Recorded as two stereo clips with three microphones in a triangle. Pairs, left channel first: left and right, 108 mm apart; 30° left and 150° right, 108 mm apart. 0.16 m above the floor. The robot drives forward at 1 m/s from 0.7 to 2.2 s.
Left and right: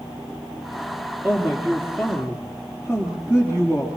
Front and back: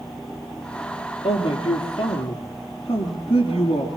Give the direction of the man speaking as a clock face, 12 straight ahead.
12 o'clock.